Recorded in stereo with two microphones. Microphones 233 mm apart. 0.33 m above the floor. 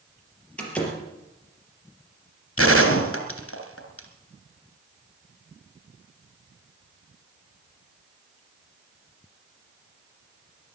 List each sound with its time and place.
0.6 s a door slam: 5° left (ahead or behind), 4.5 m
2.6 s a gunshot: 70° left (ahead or behind), 2.5 m